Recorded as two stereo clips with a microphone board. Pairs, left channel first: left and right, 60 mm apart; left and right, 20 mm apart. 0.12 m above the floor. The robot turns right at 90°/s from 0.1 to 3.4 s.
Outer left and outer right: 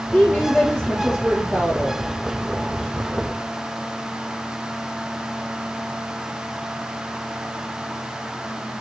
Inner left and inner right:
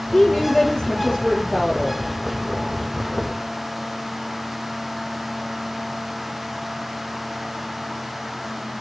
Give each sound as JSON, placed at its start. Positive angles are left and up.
{"t": 0.1, "sound": "a woman speaking", "azimuth_deg": 120, "distance_m": 1.5}